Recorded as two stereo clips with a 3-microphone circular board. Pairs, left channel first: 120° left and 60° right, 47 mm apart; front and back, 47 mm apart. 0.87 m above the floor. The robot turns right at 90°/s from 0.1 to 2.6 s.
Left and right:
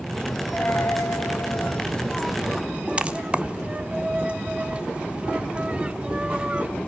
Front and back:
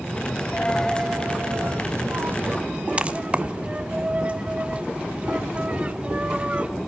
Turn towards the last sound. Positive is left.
turn(degrees=-120)